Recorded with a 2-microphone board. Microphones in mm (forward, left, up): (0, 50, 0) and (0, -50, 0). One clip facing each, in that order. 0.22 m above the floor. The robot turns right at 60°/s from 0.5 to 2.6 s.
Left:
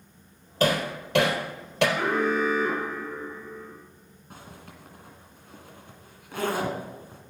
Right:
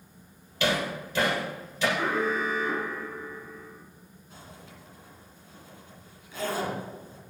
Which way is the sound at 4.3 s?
60° left (ahead or behind).